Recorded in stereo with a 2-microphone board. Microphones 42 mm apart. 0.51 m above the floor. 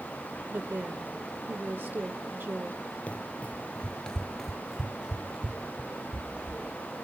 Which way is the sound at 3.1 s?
40° left (ahead or behind).